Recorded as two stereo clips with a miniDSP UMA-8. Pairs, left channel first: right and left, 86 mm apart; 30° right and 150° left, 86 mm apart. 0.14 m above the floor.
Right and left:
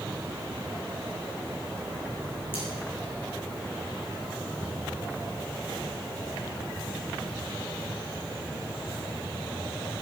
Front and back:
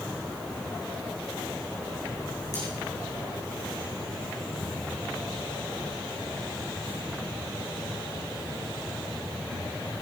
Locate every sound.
2.5 s cutlery clinking: 75° right, 6.5 m